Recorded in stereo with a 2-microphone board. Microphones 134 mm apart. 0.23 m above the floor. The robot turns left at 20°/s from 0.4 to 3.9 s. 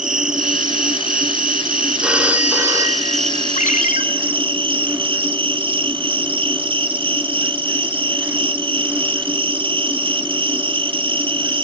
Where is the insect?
70° right, 0.8 m; by 11.6 s 140° right, 0.8 m.